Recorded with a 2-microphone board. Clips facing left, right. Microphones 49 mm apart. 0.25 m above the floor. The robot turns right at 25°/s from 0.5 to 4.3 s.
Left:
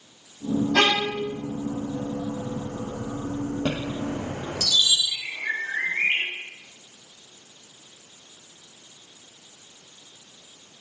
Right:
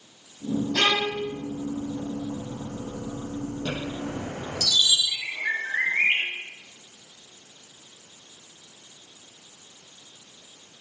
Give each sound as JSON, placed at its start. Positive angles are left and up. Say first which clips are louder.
{"t": 0.7, "sound": "a violin", "louder": "left 2 dB", "side_deg": 70, "distance_m": 9.0}
{"t": 3.6, "sound": "a chime", "louder": "left 3 dB", "side_deg": 55, "distance_m": 9.0}
{"t": 5.1, "sound": "a bird", "louder": "right 1 dB", "side_deg": -25, "distance_m": 9.0}